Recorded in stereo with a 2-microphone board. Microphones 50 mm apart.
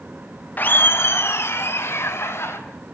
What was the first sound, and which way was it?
Laughter, 40° left (ahead or behind).